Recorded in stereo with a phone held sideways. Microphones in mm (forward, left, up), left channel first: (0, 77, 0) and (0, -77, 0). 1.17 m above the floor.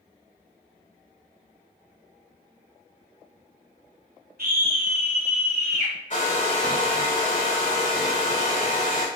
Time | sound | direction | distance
4.4 | a scream | 75° right (ahead or behind) | 0.7 m
6.1 | a hair dryer | 55° left (ahead or behind) | 2 m